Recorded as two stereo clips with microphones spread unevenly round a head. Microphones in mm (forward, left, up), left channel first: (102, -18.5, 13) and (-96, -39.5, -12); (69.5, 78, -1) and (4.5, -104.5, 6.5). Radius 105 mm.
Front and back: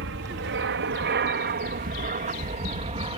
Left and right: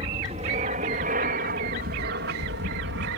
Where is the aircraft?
170° right; by 3.2 s 115° right.